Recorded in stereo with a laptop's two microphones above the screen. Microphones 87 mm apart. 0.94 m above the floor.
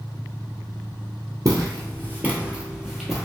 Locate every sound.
1.4 s footsteps: 40° right (ahead or behind), 1.2 m; by 3.3 s 5° left (ahead or behind), 1.3 m